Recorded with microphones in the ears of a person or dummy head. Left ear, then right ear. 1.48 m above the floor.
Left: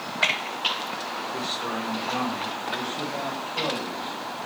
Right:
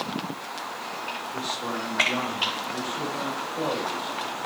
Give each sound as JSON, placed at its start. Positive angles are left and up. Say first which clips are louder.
{"t": 1.3, "sound": "a man speaking", "louder": "left 1 dB", "side_deg": 5, "distance_m": 6.5}